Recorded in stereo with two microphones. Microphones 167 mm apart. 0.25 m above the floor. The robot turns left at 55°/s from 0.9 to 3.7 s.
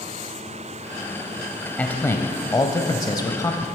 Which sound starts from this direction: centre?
A man speaking, at 1.8 s.